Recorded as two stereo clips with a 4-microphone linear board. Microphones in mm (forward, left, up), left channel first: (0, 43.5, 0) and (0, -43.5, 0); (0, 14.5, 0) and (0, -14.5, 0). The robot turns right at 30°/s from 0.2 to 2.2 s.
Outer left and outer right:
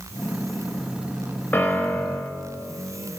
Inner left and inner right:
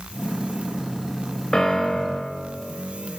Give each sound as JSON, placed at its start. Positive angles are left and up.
{"t": 1.5, "sound": "a piano", "side_deg": 20, "distance_m": 0.6}